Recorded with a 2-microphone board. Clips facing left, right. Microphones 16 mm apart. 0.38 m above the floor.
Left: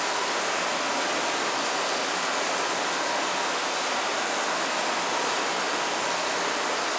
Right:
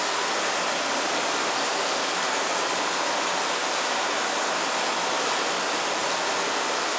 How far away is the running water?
About 8.5 m.